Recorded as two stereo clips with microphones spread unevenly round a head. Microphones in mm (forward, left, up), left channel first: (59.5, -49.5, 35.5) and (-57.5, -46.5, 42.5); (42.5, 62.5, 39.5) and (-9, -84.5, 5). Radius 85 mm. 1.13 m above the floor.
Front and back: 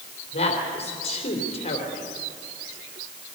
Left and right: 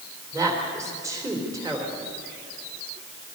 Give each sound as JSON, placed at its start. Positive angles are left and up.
{"t": 0.3, "sound": "a woman speaking", "azimuth_deg": -35, "distance_m": 3.5}